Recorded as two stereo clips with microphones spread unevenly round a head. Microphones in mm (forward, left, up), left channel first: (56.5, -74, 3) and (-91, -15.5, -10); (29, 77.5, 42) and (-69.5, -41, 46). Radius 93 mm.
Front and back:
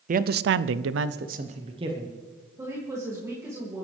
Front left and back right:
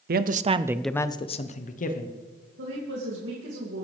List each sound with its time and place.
0.1 s a man speaking: 160° right, 0.7 m; by 2.1 s 85° left, 1.4 m
2.6 s a woman speaking: 130° right, 2.5 m